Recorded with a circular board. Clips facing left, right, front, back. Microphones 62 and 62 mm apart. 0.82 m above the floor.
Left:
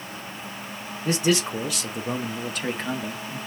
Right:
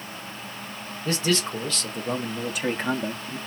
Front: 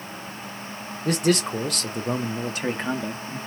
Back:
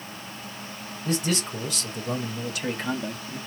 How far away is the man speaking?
About 1.5 m.